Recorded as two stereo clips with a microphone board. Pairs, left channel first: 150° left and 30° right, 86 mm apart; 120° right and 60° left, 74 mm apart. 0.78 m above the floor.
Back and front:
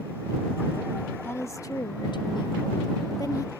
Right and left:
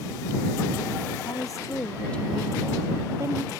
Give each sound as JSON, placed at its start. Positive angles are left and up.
{"t": 1.2, "sound": "a woman speaking", "azimuth_deg": -150}